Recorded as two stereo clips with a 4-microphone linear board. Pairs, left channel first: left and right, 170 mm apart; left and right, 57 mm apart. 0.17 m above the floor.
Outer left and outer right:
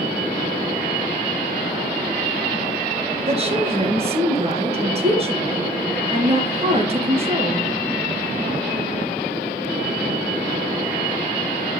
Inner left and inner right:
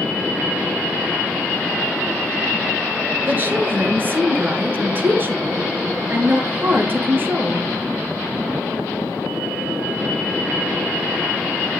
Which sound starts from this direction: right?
A woman speaking, at 3.3 s.